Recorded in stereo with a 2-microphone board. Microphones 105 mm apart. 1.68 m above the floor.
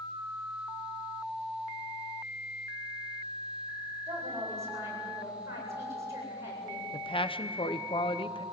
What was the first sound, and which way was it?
A woman speaking, 30° right (ahead or behind).